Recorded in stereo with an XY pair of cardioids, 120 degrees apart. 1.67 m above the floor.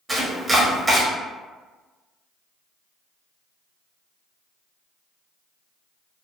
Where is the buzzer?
No buzzer in this recording.